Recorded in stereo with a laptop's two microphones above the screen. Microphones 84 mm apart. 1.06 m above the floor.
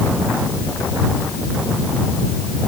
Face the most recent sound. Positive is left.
No sound to turn to.